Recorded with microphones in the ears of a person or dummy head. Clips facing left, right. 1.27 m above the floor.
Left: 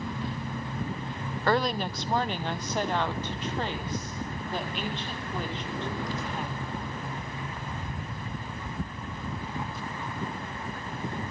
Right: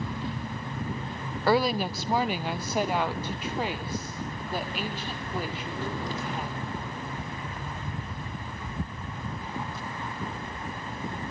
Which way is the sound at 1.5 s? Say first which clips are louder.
Right 3 dB; 5° right (ahead or behind).